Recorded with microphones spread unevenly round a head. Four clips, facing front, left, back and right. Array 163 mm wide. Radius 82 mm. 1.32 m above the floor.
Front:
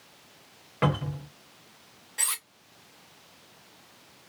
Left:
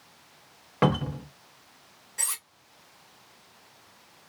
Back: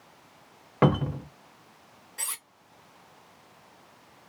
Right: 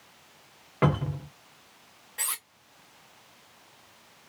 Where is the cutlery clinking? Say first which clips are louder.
Right 2 dB, front 4 dB; 25° right, 0.6 m.